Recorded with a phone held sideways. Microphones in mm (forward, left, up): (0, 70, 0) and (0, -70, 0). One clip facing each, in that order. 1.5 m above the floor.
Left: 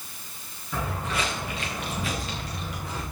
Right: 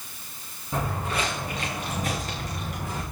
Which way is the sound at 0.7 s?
30° right (ahead or behind).